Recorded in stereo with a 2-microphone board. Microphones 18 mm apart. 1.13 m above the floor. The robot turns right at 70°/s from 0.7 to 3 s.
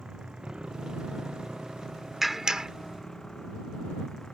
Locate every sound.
0.0 s a motorcycle: 125° right; by 4.3 s 35° left
2.2 s a clap: 165° right; by 2.7 s 130° right